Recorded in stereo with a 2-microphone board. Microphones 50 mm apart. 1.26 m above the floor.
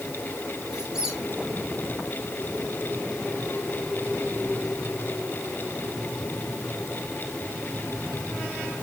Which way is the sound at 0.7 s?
15° right (ahead or behind).